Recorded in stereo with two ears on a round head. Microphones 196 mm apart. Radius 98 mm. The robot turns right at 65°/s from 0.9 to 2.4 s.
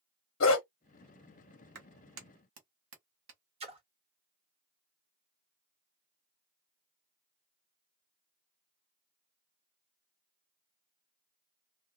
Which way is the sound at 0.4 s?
65° left (ahead or behind).